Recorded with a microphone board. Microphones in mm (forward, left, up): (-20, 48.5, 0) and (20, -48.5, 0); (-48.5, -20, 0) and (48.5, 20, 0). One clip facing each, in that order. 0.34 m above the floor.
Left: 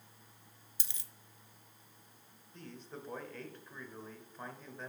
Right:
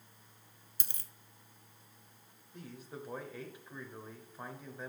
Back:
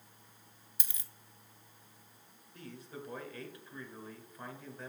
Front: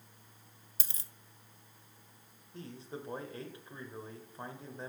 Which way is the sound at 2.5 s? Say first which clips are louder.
Right 1 dB, front 3 dB; 5° left.